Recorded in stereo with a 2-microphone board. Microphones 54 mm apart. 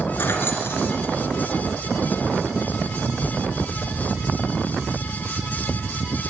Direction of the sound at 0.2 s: 50° left (ahead or behind).